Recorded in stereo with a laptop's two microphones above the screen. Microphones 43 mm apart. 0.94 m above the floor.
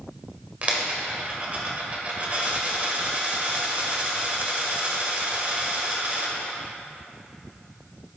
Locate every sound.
0.6 s a dropped coin: 35° right (ahead or behind), 1.6 m